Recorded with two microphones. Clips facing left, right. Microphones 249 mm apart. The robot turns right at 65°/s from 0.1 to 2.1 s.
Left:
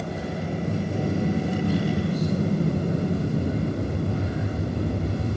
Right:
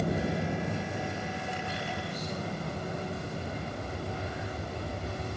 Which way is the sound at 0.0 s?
10° right.